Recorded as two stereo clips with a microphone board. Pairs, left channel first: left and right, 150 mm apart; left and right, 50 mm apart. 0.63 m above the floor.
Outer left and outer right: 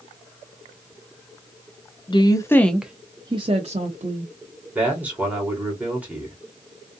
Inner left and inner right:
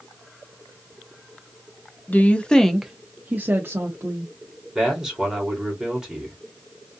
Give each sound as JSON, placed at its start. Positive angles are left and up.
{"t": 2.1, "sound": "a woman speaking", "side_deg": 35, "distance_m": 0.7}
{"t": 4.8, "sound": "a man speaking", "side_deg": -10, "distance_m": 1.8}